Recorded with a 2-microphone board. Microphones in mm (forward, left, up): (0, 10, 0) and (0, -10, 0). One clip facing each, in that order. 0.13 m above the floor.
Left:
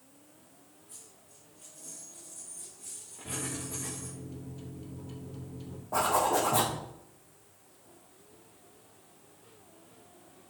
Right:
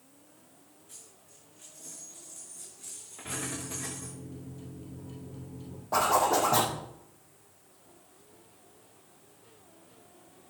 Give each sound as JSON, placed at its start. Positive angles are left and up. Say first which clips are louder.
{"t": 0.9, "sound": "a dropped coin", "louder": "right 1 dB", "side_deg": -70, "distance_m": 5.5}
{"t": 3.2, "sound": "a microwave", "louder": "right 1 dB", "side_deg": 30, "distance_m": 2.5}
{"t": 5.9, "sound": "a zipper", "louder": "right 2 dB", "side_deg": -70, "distance_m": 4.5}